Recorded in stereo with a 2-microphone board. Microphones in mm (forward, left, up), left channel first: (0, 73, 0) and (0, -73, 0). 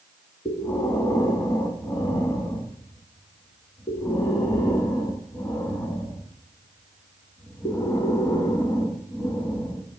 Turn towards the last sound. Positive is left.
turn(degrees=25)  # may be behind; listen again after turning